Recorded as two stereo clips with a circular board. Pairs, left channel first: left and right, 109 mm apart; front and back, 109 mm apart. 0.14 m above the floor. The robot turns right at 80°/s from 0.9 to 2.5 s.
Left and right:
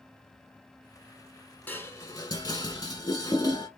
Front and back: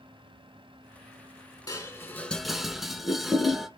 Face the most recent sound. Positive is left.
turn(degrees=95)